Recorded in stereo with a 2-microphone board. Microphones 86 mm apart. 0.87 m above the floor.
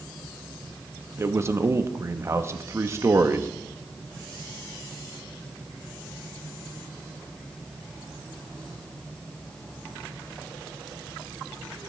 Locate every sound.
1.2 s a man speaking: 30° right (ahead or behind), 0.8 m